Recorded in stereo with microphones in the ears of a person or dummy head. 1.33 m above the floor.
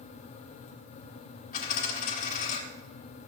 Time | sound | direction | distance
1.5 | a dropped coin | 45° left (ahead or behind) | 1.9 m